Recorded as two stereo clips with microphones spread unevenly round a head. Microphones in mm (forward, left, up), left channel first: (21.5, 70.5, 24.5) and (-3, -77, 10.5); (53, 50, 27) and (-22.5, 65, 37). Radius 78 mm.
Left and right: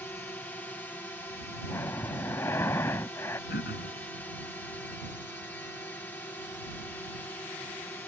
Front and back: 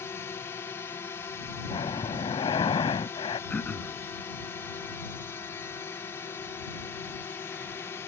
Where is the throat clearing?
60° left.